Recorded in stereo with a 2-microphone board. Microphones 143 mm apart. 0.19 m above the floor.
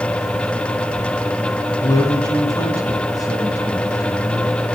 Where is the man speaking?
25° left (ahead or behind), 1.9 m.